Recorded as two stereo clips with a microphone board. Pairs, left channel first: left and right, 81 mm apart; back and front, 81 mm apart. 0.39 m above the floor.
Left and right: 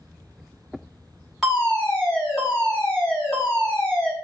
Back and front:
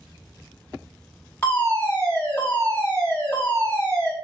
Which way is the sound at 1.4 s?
175° right.